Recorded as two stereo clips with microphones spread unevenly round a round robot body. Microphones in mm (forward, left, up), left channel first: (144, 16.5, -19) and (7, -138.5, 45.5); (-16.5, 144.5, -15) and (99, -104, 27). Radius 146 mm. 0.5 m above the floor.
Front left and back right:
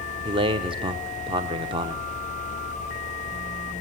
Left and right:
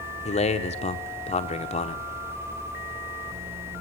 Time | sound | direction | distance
0.2 | a man speaking | 150° left | 1.0 m